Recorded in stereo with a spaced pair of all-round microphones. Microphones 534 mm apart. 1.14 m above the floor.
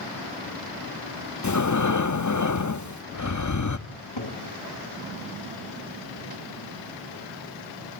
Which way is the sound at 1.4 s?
35° left (ahead or behind).